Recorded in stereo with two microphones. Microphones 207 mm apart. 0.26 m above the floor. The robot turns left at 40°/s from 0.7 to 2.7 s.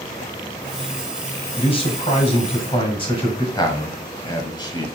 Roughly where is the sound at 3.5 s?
Left.